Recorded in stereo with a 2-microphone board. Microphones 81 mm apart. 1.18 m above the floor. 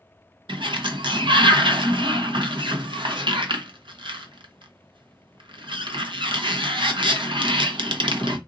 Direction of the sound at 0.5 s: 75° right (ahead or behind).